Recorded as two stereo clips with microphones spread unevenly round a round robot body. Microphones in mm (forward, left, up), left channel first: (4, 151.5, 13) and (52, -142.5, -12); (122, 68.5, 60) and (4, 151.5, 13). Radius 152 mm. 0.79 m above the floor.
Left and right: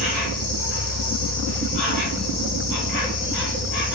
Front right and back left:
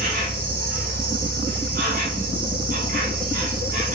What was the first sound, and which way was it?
An insect, 130° left.